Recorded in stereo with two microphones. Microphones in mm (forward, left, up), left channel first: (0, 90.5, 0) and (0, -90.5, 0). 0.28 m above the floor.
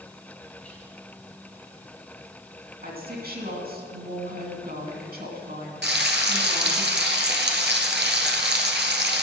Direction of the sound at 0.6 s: 10° left (ahead or behind).